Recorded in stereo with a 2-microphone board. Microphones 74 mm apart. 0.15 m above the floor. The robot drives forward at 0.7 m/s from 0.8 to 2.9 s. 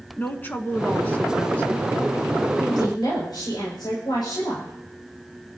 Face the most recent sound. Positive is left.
turn(degrees=70)  # may be behind; listen again after turning